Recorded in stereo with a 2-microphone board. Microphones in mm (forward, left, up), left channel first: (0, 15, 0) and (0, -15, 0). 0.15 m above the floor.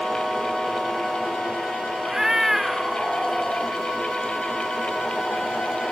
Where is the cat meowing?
15° right (ahead or behind); by 3.8 s 5° left (ahead or behind).